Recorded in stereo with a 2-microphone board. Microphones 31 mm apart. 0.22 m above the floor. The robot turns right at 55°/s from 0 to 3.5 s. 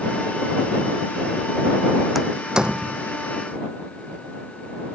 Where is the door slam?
5° right (ahead or behind); by 3.0 s 55° right (ahead or behind).